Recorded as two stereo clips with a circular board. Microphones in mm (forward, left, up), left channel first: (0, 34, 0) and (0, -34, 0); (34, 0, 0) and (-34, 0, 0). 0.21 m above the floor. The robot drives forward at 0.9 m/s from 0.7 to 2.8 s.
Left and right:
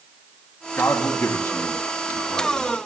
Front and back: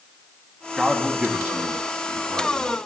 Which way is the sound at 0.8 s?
100° left.